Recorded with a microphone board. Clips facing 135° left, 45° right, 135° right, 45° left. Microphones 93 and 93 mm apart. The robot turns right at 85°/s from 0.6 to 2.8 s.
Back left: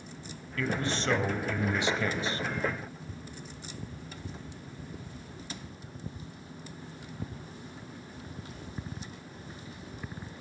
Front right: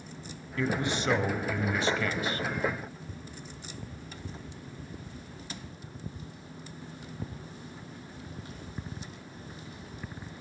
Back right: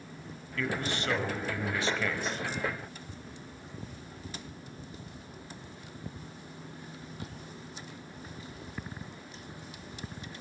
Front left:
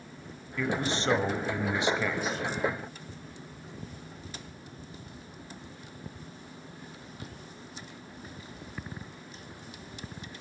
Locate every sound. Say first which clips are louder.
0.6 s a man speaking: front right 2 dB, front left 3 dB; 15° right, 1.3 m; by 2.5 s 145° left, 1.3 m